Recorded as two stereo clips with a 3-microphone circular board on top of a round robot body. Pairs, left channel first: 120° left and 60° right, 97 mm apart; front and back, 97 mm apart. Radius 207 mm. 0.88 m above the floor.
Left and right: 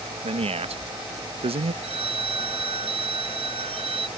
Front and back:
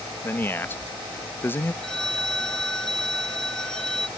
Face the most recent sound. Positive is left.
turn(degrees=-85)